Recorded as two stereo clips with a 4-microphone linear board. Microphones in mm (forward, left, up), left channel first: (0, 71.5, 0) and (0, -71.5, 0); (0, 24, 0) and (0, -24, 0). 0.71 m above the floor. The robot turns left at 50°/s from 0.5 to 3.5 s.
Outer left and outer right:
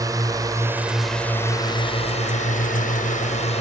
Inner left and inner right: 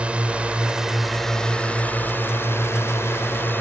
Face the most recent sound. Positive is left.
turn(degrees=55)